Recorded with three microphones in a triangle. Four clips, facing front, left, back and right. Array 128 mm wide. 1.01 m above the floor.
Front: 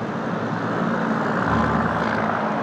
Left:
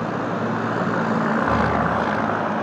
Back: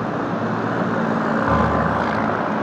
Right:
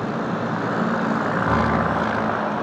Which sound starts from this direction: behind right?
A piano, at 1.5 s.